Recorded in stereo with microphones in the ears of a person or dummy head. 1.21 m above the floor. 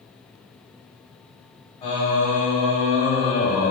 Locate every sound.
1.8 s singing: 30° left (ahead or behind), 3 m